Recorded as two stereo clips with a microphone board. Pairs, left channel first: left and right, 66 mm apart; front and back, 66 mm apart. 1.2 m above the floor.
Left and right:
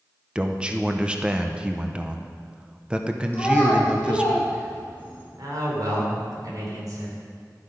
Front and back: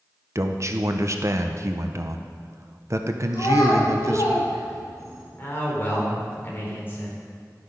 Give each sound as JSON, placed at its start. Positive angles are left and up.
{"t": 0.3, "sound": "a man speaking", "azimuth_deg": -160, "distance_m": 0.9}
{"t": 3.3, "sound": "a child speaking", "azimuth_deg": 15, "distance_m": 3.5}
{"t": 5.4, "sound": "a man speaking", "azimuth_deg": -60, "distance_m": 3.5}